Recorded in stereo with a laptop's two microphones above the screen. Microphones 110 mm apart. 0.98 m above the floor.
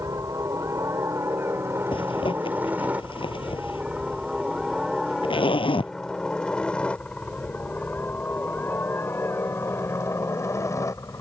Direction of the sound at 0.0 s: 30° right (ahead or behind).